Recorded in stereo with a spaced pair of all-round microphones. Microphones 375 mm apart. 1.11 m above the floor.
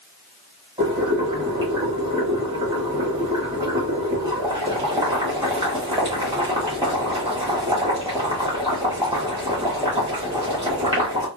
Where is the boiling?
15° right (ahead or behind), 1.4 m.